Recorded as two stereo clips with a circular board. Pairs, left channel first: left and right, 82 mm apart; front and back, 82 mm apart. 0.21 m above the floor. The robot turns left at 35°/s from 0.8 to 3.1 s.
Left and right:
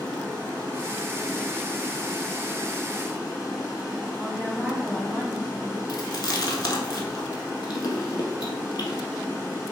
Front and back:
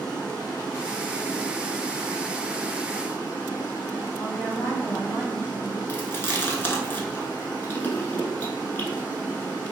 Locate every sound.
0.0 s running water: 55° left, 1.2 m; by 9.7 s 25° right, 1.2 m
4.2 s a woman speaking: straight ahead, 1.2 m
5.9 s chewing: 60° left, 0.5 m